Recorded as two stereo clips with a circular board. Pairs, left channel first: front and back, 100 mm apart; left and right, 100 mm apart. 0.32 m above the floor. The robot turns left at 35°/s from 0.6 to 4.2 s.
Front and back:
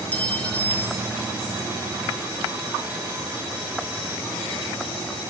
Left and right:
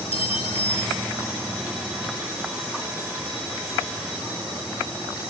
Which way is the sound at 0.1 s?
75° left.